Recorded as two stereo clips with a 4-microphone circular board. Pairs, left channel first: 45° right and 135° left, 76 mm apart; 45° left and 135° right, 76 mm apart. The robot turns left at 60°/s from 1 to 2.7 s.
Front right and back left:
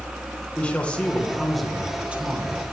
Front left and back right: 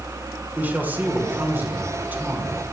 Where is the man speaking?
100° right, 1.3 m; by 2.6 s 165° left, 1.3 m.